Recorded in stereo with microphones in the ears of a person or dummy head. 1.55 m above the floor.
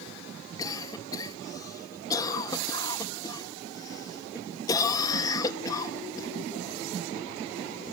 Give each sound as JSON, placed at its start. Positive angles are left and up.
{"t": 0.6, "sound": "a cough", "side_deg": 25, "distance_m": 2.5}